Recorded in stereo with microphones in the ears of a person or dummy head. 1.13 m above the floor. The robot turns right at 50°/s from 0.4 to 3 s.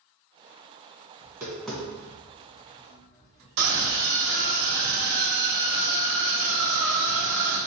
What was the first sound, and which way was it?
Tapping, 25° right (ahead or behind).